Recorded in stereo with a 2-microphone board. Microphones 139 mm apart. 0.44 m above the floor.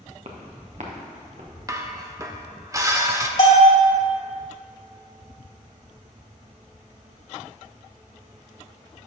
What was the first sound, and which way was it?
Footsteps, 55° right (ahead or behind).